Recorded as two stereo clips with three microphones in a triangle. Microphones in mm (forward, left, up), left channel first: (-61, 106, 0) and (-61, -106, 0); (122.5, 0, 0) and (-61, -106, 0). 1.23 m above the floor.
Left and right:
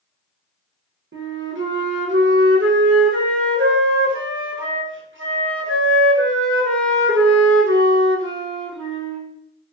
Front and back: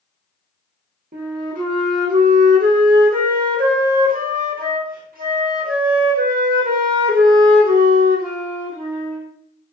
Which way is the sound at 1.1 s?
105° right.